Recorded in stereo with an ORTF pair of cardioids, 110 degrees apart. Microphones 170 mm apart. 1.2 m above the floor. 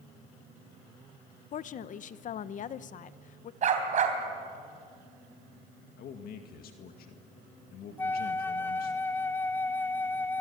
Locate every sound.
1.5 s a woman speaking: 50° left, 0.9 m
3.6 s a dog barking: 45° right, 4 m
6.0 s a man speaking: 65° left, 2 m
8.0 s a flute: 10° left, 0.6 m